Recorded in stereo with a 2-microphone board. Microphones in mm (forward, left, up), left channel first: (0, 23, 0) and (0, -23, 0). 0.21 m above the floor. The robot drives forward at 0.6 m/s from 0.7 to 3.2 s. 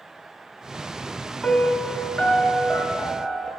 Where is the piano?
25° left (ahead or behind), 0.7 m; by 3.5 s 10° left (ahead or behind), 1.7 m.